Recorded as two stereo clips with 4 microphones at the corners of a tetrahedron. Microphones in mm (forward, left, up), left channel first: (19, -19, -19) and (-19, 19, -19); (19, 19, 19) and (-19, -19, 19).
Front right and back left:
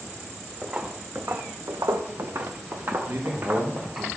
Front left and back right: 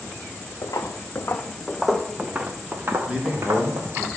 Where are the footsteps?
65° left, 1.0 m; by 4.1 s 170° right, 2 m.